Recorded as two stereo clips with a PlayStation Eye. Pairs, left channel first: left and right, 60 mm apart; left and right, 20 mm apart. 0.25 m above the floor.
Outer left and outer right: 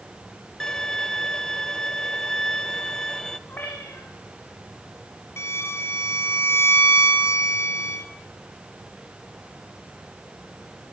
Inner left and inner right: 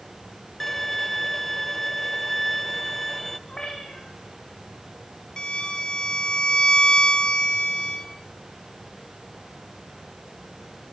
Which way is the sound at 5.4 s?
45° left (ahead or behind).